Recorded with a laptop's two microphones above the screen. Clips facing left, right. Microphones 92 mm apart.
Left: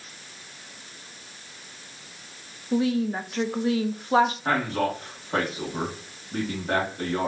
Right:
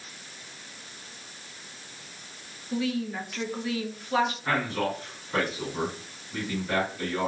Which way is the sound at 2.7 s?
35° left (ahead or behind).